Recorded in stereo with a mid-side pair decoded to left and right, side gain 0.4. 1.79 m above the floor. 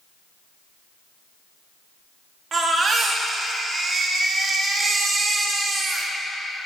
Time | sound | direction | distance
2.5 | a baby crying | 50° right | 3 m